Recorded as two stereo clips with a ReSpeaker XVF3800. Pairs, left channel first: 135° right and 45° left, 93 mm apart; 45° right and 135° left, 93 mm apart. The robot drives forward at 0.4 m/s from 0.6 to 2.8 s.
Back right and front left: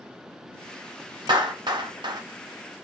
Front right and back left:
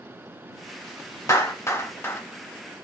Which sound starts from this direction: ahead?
A clap, at 1.3 s.